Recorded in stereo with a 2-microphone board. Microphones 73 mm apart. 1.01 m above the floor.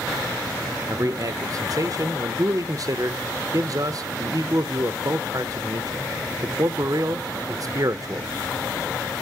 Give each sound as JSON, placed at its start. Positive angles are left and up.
{"t": 0.9, "sound": "a man speaking", "side_deg": -50, "distance_m": 0.5}